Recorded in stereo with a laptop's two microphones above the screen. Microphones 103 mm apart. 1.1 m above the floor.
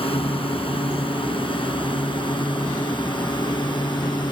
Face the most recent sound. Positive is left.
turn(degrees=45)  # may be behind; listen again after turning